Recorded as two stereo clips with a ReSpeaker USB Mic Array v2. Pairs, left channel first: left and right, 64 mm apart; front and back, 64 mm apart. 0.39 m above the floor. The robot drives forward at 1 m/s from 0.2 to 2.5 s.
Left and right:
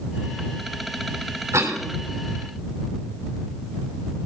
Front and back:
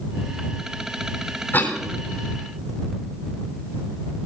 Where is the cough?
55° right, 3 m; by 1.8 s 60° right, 3 m.